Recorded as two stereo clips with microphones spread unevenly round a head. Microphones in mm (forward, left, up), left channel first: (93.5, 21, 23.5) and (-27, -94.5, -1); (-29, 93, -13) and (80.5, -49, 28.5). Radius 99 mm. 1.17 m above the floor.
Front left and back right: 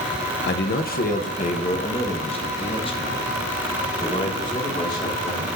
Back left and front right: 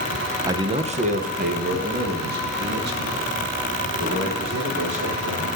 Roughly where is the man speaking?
Ahead left.